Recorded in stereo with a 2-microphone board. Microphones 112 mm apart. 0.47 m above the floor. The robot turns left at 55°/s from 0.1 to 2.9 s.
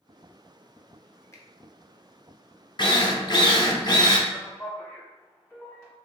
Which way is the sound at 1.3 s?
25° left (ahead or behind).